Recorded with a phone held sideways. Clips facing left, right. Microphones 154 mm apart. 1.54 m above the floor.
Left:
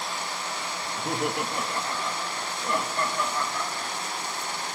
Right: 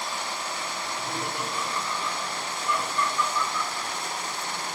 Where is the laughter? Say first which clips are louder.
Left 7 dB; 65° left (ahead or behind), 1.8 m; by 4.1 s 45° left (ahead or behind), 3.5 m.